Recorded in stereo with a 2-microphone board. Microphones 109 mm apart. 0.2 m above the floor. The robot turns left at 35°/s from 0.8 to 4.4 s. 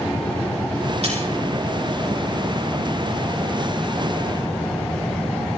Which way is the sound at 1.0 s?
60° right (ahead or behind).